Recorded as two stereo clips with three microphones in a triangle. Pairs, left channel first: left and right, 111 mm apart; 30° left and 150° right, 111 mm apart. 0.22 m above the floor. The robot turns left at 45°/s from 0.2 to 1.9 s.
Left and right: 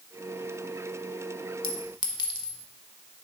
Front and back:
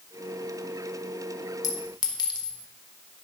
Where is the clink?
70° left, 0.8 m; by 2.6 s 60° left, 0.8 m.